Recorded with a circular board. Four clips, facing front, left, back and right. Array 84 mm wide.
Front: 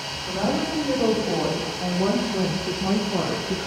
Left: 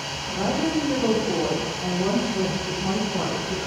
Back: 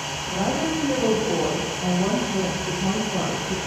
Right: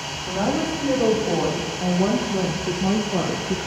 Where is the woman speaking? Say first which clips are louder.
Right 2 dB, even; 75° right, 5 m; by 3.7 s 60° right, 1.3 m.